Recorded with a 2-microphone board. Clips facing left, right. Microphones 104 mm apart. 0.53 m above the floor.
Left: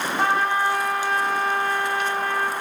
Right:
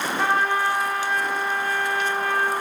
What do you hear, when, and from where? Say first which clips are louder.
0.2 s a trumpet: left 1 dB; 30° left (ahead or behind), 5 m